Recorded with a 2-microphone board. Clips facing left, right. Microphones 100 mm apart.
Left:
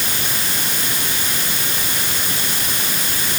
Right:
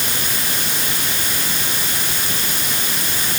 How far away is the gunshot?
I don't hear a gunshot.